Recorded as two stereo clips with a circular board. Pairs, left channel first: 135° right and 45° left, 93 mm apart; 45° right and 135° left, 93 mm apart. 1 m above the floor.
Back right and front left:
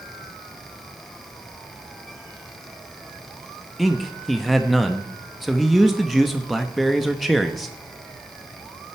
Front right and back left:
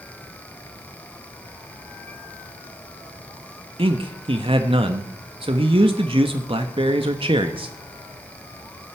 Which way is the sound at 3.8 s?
135° left.